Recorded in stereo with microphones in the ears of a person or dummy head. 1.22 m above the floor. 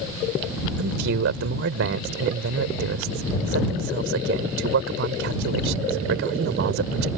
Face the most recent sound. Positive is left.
turn(degrees=-65)  # may be behind; listen again after turning